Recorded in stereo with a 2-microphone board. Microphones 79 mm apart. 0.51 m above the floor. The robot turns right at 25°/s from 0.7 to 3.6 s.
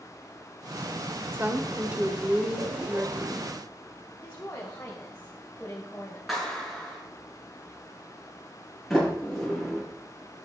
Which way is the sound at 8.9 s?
Centre (ahead or behind).